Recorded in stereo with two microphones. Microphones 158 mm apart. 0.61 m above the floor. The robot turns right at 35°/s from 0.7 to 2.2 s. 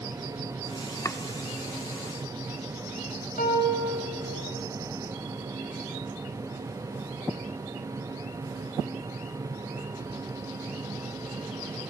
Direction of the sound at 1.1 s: 20° left (ahead or behind).